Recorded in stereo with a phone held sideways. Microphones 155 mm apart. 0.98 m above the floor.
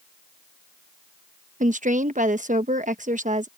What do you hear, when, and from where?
1.6 s a woman speaking: 55° right (ahead or behind)